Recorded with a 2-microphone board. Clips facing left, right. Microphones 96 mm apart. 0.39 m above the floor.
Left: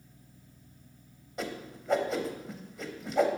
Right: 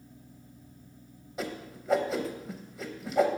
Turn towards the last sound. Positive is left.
turn(degrees=0)  # may be behind; listen again after turning